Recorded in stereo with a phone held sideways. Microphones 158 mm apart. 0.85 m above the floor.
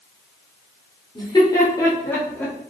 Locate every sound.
1.1 s laughter: 30° left (ahead or behind), 3 m; by 2.5 s 10° left (ahead or behind), 3.5 m